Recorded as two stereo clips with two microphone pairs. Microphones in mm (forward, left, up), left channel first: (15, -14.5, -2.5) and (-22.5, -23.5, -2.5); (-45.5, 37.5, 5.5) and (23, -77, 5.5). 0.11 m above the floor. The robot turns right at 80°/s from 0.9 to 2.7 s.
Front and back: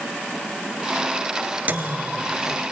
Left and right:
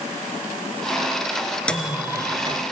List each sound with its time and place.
1.7 s a microwave: 160° right, 1.6 m; by 2.6 s 85° right, 1.6 m